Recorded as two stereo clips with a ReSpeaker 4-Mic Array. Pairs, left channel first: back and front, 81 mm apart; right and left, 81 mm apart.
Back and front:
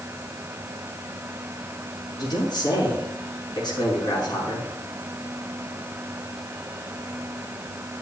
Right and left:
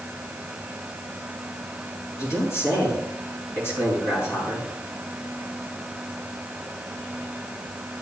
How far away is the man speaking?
About 6 m.